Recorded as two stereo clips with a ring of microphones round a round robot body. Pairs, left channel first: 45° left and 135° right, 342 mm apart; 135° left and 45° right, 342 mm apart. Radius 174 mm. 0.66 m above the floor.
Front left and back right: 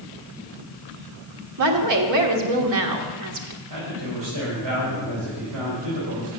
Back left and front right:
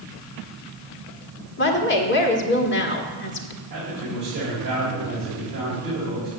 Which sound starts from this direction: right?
A man speaking, at 3.7 s.